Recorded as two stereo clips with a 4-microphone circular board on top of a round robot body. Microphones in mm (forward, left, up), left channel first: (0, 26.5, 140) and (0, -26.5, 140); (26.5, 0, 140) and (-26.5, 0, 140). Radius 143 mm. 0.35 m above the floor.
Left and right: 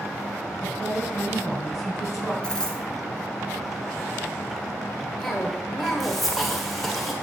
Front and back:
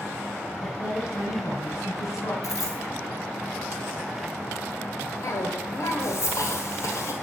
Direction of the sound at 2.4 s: 10° left.